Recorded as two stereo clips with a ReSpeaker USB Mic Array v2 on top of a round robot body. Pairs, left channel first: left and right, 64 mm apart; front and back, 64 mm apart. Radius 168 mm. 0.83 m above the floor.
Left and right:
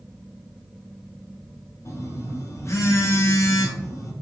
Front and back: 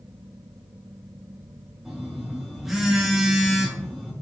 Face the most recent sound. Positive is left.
turn(degrees=95)